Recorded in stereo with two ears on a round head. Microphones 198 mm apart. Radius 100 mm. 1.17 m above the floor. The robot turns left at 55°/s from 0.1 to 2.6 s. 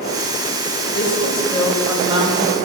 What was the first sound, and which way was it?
A woman speaking, 45° left.